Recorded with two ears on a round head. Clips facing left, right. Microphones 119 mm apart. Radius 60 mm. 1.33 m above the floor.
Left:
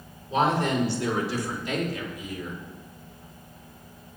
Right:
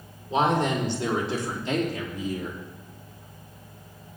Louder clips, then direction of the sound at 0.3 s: Right 1 dB; 15° right (ahead or behind).